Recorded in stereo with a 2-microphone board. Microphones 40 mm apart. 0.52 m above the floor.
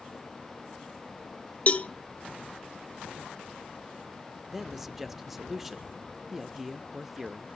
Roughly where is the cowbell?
Left.